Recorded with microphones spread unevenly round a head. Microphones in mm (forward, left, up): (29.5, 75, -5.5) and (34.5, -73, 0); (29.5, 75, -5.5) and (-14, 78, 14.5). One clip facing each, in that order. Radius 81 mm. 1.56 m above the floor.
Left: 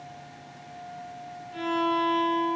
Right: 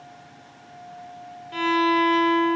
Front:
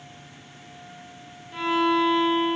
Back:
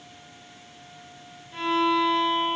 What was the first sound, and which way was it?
A violin, 75° right.